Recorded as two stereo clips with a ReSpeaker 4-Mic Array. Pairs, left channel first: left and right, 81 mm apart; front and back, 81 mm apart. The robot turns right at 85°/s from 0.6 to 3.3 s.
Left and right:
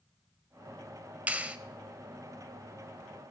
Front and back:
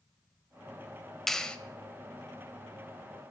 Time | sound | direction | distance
1.3 | a clap | 80° right | 0.8 m